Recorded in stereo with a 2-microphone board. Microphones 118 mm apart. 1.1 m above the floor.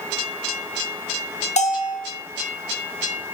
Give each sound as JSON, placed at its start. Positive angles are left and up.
{"t": 1.6, "sound": "a bell", "side_deg": 80, "distance_m": 0.9}